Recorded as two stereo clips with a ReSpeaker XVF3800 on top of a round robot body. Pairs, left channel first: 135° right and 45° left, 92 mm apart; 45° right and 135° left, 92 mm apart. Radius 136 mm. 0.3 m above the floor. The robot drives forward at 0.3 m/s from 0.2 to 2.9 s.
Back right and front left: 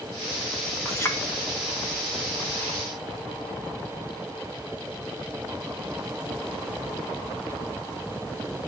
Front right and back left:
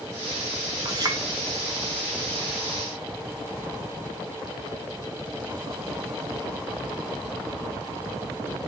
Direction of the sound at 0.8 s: 170° left.